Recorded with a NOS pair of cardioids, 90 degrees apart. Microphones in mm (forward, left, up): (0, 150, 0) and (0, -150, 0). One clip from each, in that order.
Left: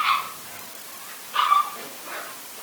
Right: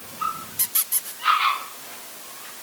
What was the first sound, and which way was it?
Only background noise.